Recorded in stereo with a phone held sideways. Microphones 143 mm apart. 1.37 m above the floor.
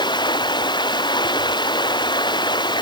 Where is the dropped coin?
I don't hear a dropped coin.